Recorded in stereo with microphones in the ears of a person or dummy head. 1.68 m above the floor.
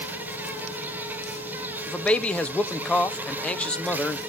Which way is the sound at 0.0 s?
10° right (ahead or behind).